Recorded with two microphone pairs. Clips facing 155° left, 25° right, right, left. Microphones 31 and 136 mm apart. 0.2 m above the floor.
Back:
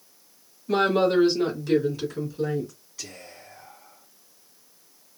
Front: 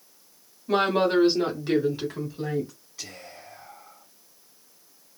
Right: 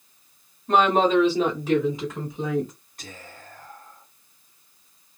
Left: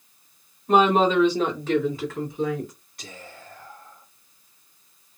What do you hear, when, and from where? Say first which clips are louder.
0.7 s a woman speaking: back 1 dB, left 1 dB; 25° left, 1.6 m; by 2.7 s 60° right, 1.8 m
3.0 s whispering: even, left 1 dB; 105° right, 1.8 m